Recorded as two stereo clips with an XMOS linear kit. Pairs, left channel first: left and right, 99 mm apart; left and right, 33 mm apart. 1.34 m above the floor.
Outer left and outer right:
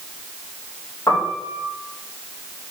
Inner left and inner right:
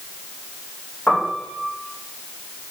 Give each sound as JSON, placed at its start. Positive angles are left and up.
{"t": 1.1, "sound": "a piano", "side_deg": 30, "distance_m": 1.5}